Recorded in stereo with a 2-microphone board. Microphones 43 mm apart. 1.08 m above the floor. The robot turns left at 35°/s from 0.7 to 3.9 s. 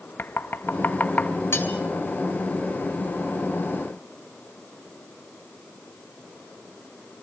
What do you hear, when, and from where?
0.2 s knocking: 55° left (ahead or behind), 0.9 m; by 1.3 s 30° left (ahead or behind), 0.9 m
1.5 s cutlery clinking: 80° left, 3.5 m; by 1.7 s 70° left (ahead or behind), 3.5 m